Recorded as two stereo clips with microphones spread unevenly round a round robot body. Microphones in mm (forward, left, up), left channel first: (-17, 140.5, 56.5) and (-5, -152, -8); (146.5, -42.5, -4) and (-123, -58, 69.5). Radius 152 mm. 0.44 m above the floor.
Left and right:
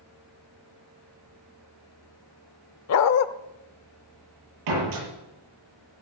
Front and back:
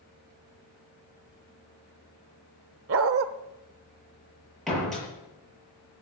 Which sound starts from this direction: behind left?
A dog barking, at 2.9 s.